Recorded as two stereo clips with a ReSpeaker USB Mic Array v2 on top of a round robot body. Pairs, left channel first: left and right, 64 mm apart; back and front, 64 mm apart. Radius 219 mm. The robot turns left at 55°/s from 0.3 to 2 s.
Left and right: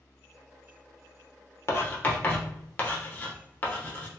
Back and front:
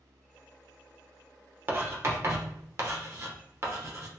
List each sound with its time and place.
1.7 s writing: 50° left, 1.0 m; by 4.1 s 30° left, 1.0 m